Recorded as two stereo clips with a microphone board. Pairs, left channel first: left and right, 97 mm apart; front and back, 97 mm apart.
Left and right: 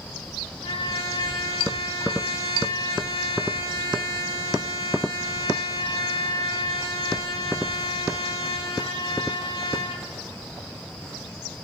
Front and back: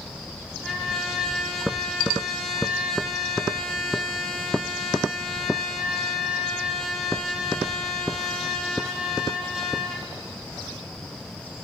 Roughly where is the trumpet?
Left.